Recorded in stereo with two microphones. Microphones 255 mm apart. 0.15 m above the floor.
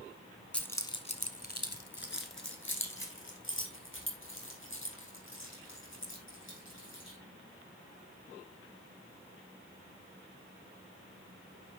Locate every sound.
0.5 s keys jangling: 5° left (ahead or behind), 1.0 m; by 7.2 s 50° left (ahead or behind), 5 m